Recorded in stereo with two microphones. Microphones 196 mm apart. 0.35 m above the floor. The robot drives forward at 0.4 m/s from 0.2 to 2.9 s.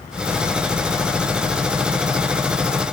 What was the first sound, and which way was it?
Only background noise.